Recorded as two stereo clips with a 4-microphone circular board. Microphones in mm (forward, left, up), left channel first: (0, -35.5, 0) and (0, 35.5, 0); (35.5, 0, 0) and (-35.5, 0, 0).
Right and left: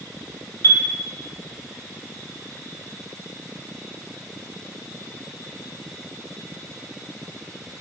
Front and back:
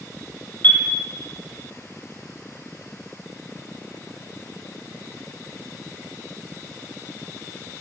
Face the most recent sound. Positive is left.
turn(degrees=-55)